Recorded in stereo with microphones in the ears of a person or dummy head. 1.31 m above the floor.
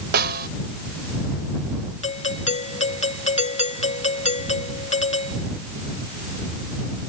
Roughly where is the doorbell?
Left.